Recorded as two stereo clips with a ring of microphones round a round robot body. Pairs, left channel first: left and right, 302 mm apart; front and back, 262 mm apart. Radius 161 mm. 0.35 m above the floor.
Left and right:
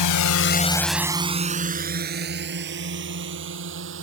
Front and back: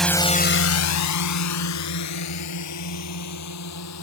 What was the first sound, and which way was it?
A drone, 90° left.